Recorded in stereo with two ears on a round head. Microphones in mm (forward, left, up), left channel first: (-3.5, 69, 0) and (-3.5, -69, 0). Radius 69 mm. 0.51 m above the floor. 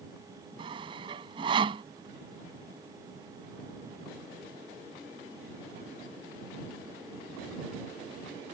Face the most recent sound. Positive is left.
turn(degrees=-35)  # may be behind; listen again after turning